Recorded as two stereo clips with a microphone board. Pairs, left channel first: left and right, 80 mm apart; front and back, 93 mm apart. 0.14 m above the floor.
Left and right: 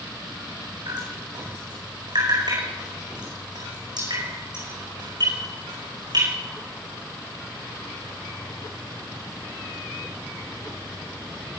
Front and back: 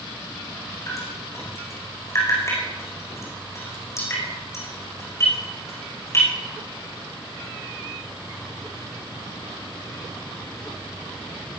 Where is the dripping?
60° right, 8.5 m.